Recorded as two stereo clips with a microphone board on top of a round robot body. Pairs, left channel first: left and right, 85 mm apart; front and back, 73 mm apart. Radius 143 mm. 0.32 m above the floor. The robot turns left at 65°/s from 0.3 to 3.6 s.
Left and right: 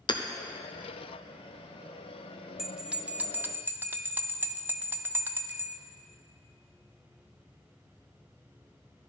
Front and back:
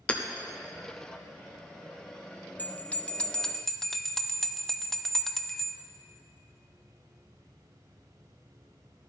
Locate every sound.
0.1 s hammering: 75° left, 0.8 m
2.6 s a bell: 15° right, 0.7 m; by 5.8 s 80° right, 0.7 m